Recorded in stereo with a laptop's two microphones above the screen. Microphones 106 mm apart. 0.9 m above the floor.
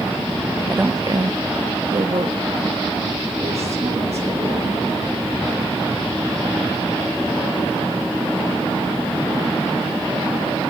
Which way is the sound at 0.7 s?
10° right (ahead or behind).